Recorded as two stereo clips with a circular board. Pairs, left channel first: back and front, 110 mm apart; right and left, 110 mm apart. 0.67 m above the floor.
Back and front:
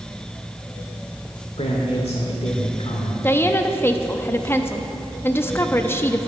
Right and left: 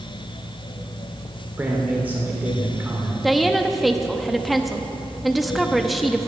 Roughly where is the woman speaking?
Behind.